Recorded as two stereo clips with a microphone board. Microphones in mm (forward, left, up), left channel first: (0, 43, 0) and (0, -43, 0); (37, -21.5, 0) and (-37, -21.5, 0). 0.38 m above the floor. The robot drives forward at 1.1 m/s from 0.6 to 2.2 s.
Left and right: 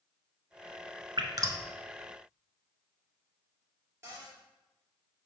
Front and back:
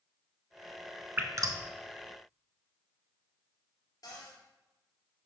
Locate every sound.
1.2 s dripping: 120° right, 0.6 m; by 1.6 s 145° right, 1.0 m
4.0 s a cupboard door: 30° right, 2.5 m